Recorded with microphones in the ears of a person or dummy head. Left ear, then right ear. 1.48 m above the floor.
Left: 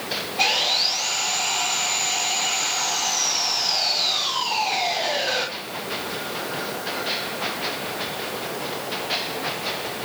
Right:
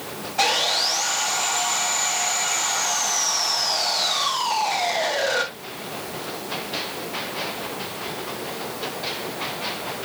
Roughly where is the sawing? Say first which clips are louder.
Even; right.